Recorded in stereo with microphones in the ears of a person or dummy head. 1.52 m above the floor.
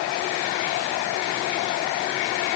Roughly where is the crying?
No crying in this recording.